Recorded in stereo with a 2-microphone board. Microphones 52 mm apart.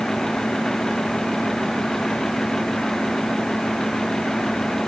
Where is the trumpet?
I don't hear a trumpet.